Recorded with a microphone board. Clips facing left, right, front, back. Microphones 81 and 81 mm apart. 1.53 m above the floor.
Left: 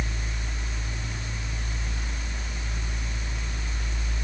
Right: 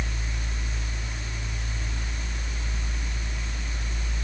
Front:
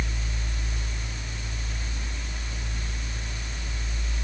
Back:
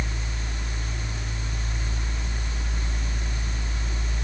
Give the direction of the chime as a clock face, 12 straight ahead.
No chime in this recording.